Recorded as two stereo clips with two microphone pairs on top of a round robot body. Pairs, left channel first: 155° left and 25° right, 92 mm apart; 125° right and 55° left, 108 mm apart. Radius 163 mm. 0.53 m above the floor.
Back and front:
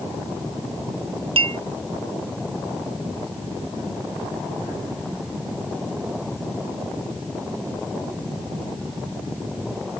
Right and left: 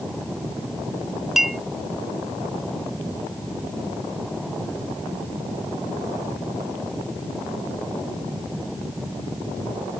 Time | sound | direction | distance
1.4 | a clink | 30° right | ?